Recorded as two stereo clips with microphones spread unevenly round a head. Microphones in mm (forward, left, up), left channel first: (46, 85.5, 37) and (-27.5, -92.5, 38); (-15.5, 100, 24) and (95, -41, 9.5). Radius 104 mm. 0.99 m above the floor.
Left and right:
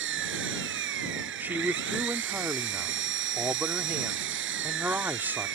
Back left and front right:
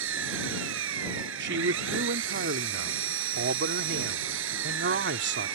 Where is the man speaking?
30° right.